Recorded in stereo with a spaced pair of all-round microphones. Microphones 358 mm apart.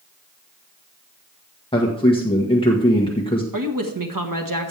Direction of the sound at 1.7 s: 15° left (ahead or behind).